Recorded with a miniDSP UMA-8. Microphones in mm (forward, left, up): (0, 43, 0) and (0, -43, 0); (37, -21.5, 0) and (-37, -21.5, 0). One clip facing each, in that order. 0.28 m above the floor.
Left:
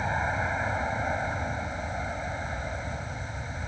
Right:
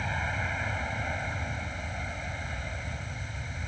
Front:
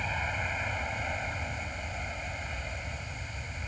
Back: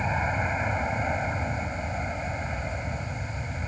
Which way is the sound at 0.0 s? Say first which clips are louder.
Left 5 dB, back 6 dB; 135° left.